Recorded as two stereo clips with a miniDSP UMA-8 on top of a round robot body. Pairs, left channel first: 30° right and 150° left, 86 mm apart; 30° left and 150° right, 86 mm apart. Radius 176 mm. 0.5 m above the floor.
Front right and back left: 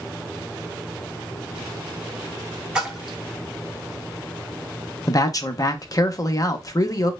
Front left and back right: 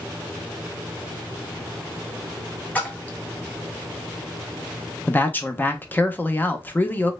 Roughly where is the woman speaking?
Ahead right.